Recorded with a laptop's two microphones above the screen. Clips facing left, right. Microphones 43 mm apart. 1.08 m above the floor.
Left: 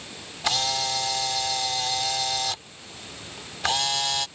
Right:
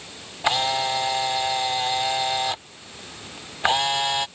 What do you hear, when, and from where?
0.4 s a camera shutter: 25° right (ahead or behind)